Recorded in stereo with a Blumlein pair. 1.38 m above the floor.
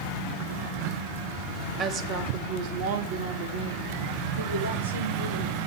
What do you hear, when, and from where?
1.8 s a woman speaking: 30° right, 1.9 m; by 5.6 s 70° right, 5.5 m